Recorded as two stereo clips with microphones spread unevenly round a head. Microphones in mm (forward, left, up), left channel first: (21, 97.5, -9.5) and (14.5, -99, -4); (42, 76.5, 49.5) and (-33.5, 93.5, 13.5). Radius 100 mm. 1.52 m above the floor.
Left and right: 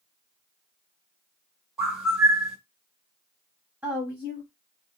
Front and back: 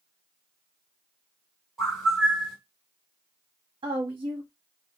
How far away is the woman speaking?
About 1.0 m.